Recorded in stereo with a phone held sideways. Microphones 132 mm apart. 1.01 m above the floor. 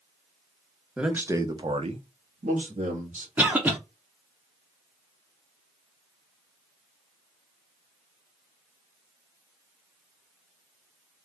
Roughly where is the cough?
Centre.